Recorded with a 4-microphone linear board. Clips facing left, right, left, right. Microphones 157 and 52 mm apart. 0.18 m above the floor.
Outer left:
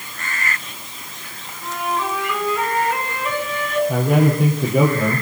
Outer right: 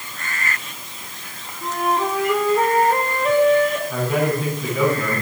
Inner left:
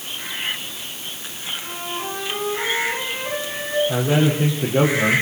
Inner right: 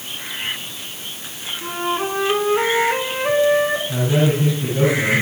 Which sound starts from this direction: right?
A flute, at 1.6 s.